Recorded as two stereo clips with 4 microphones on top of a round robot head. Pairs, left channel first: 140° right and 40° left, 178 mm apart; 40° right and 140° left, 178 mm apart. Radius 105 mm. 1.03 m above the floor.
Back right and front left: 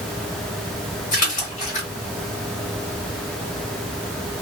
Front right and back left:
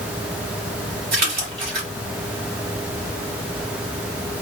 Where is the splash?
175° left, 1.5 m.